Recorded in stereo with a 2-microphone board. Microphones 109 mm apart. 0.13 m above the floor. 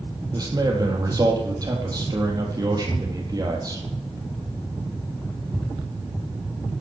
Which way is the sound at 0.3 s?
35° right (ahead or behind).